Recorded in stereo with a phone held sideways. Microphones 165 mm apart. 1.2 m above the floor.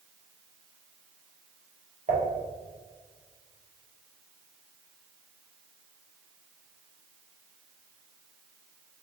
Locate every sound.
2.1 s dishes clattering: 50° right (ahead or behind), 1.4 m